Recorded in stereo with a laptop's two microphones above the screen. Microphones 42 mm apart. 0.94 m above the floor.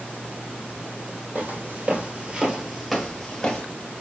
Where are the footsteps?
45° right (ahead or behind), 1.3 m; by 3.6 s 25° left (ahead or behind), 1.0 m.